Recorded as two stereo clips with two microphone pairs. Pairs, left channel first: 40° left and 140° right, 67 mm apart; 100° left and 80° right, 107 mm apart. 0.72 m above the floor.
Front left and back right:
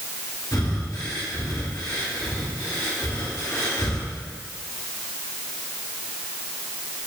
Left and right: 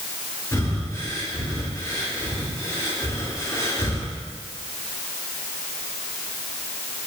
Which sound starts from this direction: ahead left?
Breathing, at 0.5 s.